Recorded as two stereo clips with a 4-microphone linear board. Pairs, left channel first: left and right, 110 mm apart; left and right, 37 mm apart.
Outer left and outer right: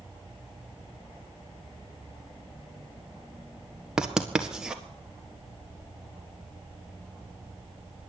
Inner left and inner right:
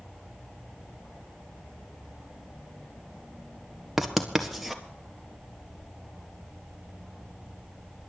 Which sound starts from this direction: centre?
Writing, at 4.0 s.